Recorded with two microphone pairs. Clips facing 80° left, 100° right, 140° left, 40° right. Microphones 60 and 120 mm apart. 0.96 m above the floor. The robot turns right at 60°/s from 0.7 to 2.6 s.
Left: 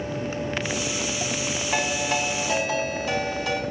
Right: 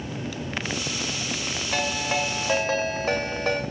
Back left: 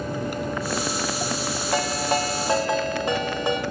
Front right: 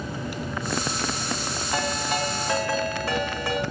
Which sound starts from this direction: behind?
A ringtone, at 1.7 s.